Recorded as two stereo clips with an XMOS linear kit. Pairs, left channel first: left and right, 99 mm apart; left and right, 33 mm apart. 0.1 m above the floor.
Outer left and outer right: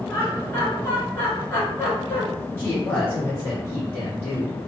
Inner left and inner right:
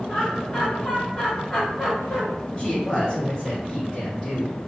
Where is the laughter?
20° left (ahead or behind), 1.6 m.